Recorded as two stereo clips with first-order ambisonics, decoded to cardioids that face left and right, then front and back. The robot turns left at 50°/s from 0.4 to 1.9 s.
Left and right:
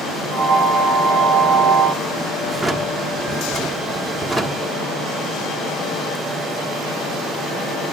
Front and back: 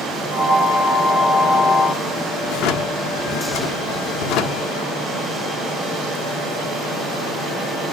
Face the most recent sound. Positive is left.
turn(degrees=0)